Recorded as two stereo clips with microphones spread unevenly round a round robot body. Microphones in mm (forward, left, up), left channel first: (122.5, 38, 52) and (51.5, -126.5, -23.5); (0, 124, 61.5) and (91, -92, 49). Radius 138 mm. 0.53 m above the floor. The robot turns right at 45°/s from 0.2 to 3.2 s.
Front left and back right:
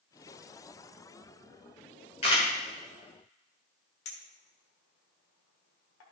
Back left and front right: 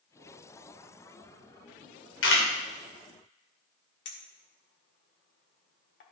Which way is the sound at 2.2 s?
140° left.